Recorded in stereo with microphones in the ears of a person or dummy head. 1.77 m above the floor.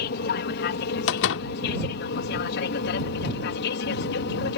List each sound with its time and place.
0.0 s an aircraft: 55° left (ahead or behind); by 4.6 s 60° left (ahead or behind)
1.1 s a door slam: 70° left (ahead or behind)